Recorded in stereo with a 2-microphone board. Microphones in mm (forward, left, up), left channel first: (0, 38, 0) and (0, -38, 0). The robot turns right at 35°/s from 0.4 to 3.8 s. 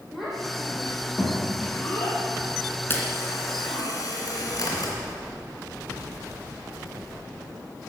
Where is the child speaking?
5° right (ahead or behind), 6 m; by 3.9 s 65° left (ahead or behind), 6 m.